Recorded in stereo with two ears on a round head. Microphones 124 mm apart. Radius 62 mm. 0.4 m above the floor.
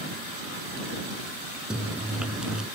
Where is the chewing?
5° right (ahead or behind).